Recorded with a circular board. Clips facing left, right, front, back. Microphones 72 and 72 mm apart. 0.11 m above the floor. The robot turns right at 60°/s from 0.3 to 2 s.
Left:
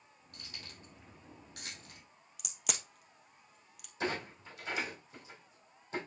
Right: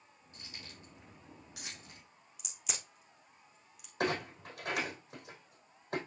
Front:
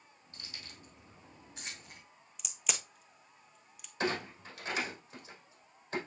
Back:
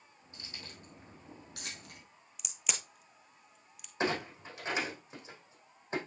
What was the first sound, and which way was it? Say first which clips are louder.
Keys jangling: even, back 2 dB; 110° left.